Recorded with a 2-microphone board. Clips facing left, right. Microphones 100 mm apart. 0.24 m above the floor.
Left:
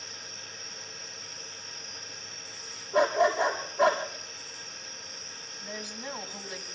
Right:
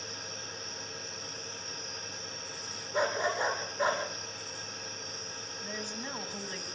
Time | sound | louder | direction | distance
2.9 | a dog barking | left 7 dB | 80° left | 4 m
5.6 | a woman speaking | left 1 dB | 15° left (ahead or behind) | 2.0 m